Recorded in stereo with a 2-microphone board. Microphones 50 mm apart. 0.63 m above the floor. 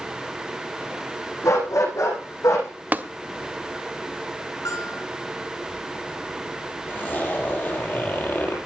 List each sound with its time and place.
1.4 s a dog barking: 80° left, 10 m
2.9 s tapping: 35° right (ahead or behind), 0.9 m
4.7 s a bell: 75° left (ahead or behind), 6 m
6.9 s a zipper: 40° left (ahead or behind), 6 m